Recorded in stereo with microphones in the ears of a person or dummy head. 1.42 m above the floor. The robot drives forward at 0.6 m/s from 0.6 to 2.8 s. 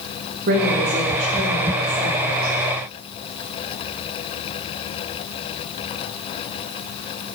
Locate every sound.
0.5 s a woman speaking: 55° right (ahead or behind), 2 m; by 2.5 s 35° right (ahead or behind), 3 m